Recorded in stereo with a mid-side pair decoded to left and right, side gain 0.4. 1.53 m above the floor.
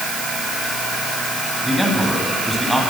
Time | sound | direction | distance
1.6 | a man speaking | 5° right | 10 m